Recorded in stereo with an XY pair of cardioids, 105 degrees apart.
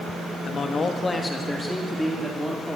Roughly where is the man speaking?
Ahead left.